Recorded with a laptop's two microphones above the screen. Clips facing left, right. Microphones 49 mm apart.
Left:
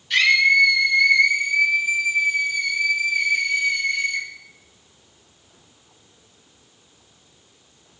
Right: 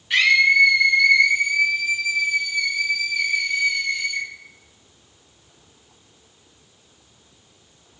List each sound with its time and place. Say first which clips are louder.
0.1 s a scream: even; 25° right (ahead or behind), 1.9 m; by 4.2 s 70° left (ahead or behind), 2 m